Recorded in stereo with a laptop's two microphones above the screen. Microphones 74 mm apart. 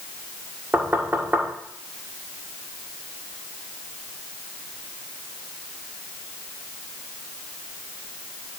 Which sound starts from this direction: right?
Knocking, at 0.7 s.